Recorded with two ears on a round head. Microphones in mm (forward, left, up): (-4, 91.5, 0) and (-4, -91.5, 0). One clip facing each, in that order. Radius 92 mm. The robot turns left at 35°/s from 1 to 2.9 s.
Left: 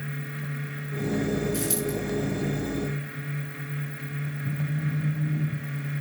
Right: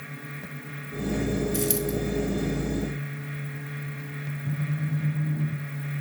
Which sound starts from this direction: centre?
A phone buzzing, at 4.4 s.